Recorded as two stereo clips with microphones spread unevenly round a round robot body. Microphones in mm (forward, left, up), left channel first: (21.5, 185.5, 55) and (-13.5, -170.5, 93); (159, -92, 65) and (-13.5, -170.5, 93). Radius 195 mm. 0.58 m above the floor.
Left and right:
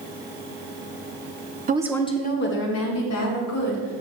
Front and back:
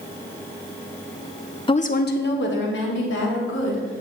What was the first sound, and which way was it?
A woman speaking, 30° right.